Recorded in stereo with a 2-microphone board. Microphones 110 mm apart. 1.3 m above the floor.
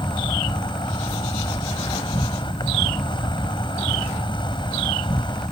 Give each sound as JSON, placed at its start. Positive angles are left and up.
{"t": 0.0, "sound": "an insect", "side_deg": 45}